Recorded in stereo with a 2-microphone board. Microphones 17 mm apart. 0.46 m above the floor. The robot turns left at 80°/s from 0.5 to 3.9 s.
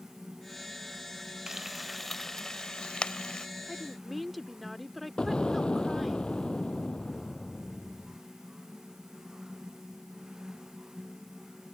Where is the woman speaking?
10° right (ahead or behind); by 6.2 s centre (ahead or behind).